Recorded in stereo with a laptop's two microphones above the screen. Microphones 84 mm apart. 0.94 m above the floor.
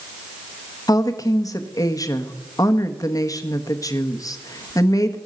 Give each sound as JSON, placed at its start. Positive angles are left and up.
{"t": 0.9, "sound": "a woman speaking", "side_deg": 45, "distance_m": 1.2}